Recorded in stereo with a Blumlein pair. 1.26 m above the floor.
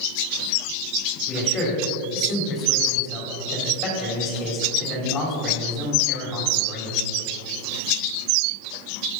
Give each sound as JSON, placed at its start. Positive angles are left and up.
{"t": 1.3, "sound": "a man speaking", "azimuth_deg": 25, "distance_m": 4.5}